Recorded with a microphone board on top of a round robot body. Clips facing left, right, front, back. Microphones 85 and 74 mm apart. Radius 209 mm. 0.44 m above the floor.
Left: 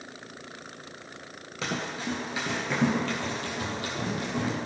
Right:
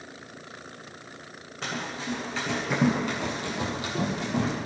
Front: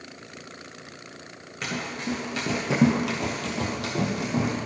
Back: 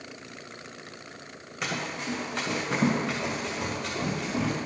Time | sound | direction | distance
1.6 | running footsteps | 95° left | 0.5 m